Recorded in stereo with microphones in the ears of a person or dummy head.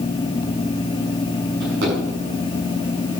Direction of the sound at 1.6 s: 65° right (ahead or behind).